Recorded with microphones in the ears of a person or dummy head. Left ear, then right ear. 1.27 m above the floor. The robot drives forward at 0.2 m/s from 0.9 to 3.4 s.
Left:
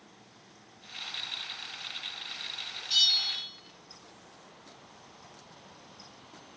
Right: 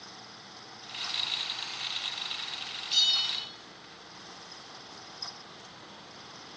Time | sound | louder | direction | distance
2.9 | a bell | left 1 dB | 40° left (ahead or behind) | 0.7 m